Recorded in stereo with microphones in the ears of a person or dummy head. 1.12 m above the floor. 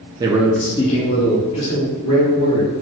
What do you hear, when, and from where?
0.2 s a man speaking: 25° right (ahead or behind), 0.6 m; by 2.7 s 65° left (ahead or behind), 1.8 m